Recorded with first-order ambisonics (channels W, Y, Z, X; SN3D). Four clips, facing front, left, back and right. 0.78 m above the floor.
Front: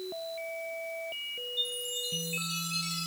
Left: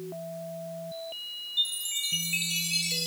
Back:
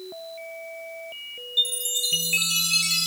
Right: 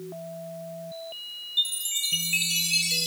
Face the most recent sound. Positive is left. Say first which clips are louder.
# right 3 dB, back 11 dB
turn(degrees=-160)